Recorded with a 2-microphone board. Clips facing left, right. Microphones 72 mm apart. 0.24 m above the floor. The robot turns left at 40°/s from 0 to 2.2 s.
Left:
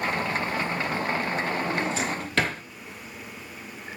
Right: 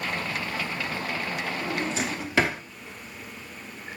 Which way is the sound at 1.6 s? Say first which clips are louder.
Left 2 dB; 10° left (ahead or behind).